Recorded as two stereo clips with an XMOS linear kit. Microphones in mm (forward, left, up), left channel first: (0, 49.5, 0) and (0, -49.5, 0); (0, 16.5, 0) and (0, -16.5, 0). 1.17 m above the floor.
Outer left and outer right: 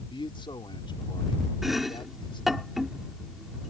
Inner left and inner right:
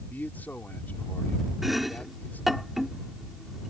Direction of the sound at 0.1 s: 55° left (ahead or behind).